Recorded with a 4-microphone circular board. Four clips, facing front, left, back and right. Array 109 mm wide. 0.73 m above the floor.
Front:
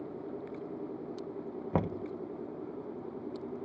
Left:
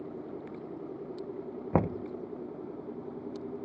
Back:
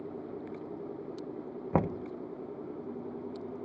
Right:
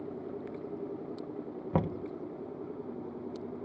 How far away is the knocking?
About 0.5 m.